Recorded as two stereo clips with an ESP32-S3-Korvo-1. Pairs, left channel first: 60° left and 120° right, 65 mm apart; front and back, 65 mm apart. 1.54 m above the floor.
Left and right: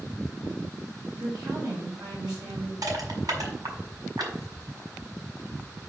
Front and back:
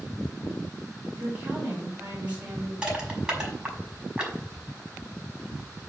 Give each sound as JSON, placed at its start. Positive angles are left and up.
{"t": 1.1, "sound": "a woman speaking", "azimuth_deg": -110, "distance_m": 6.0}
{"t": 2.8, "sound": "crushing", "azimuth_deg": -105, "distance_m": 5.5}